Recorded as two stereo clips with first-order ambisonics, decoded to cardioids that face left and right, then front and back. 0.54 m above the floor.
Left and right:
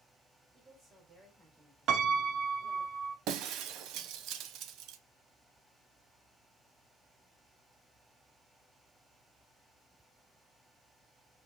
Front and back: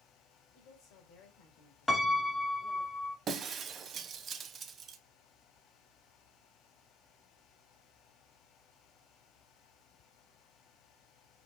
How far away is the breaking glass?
About 0.6 m.